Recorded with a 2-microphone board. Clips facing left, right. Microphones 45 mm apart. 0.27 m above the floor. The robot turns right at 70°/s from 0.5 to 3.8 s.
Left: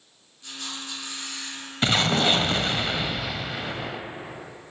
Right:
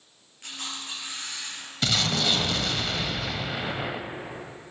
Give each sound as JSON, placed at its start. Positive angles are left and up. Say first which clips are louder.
{"t": 0.4, "sound": "a camera shutter", "louder": "even", "azimuth_deg": -60, "distance_m": 4.0}
{"t": 1.8, "sound": "an explosion", "louder": "left 4 dB", "azimuth_deg": 65, "distance_m": 0.6}